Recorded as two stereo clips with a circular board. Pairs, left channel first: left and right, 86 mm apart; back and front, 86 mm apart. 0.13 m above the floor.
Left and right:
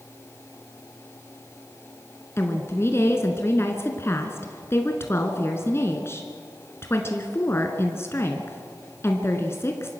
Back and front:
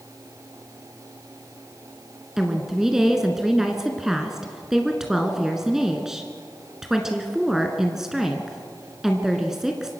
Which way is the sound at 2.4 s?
80° left.